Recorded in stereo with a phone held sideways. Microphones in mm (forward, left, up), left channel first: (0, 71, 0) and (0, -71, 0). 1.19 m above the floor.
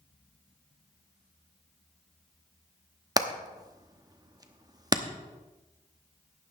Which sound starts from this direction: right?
Hammering, at 3.2 s.